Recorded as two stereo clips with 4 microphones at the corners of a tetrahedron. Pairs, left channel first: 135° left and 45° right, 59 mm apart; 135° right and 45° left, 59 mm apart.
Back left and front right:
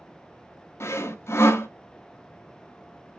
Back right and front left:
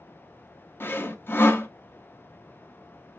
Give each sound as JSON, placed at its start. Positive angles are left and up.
{"t": 0.8, "sound": "sawing", "azimuth_deg": 175, "distance_m": 0.6}